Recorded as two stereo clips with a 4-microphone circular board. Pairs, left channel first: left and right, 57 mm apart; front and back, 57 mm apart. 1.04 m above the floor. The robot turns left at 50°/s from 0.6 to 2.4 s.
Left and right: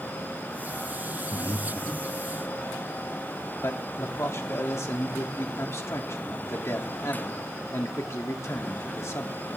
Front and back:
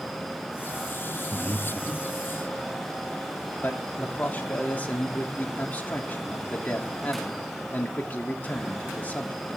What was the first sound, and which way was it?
Breathing, 75° left.